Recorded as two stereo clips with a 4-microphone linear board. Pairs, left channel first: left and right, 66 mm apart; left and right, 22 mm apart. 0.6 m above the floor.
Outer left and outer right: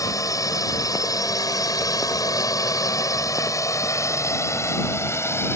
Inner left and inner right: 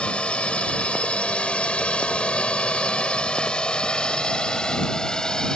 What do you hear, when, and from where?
0.0 s a drone: 55° left (ahead or behind); by 5.6 s 40° left (ahead or behind)